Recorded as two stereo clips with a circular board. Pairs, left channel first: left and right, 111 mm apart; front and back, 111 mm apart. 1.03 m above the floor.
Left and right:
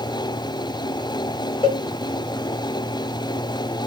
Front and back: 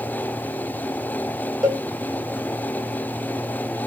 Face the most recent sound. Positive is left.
turn(degrees=90)